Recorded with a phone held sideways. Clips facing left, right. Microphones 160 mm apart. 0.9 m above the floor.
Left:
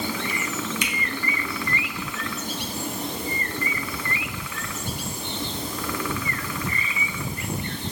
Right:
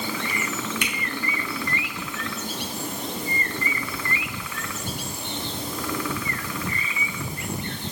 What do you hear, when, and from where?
0.8 s a finger snap: 55° right (ahead or behind), 3 m